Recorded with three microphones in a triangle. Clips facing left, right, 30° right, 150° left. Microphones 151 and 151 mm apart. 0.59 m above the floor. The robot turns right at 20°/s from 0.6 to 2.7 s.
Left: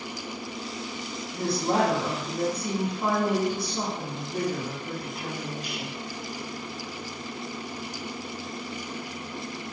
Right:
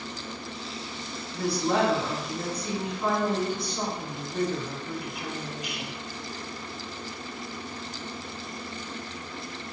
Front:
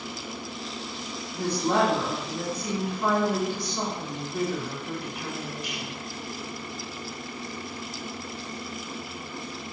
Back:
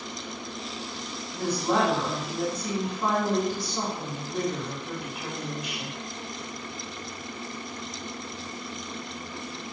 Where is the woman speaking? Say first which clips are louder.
Even, front 1 dB; 40° left, 1.3 m; by 6.0 s 65° left, 1.3 m.